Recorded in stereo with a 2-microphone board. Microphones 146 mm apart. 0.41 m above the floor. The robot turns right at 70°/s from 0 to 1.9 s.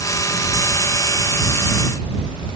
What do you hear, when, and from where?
Only background noise.